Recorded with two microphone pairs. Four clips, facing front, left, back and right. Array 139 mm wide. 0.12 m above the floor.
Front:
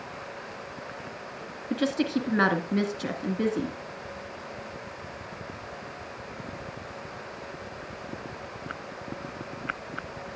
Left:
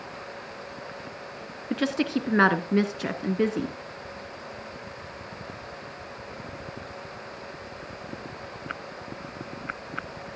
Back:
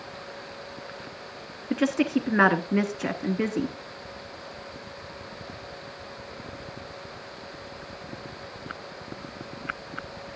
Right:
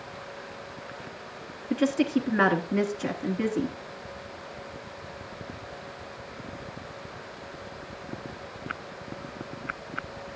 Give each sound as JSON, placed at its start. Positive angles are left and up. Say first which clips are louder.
{"t": 1.7, "sound": "a woman speaking", "louder": "right 2 dB, back 3 dB", "azimuth_deg": 145, "distance_m": 1.1}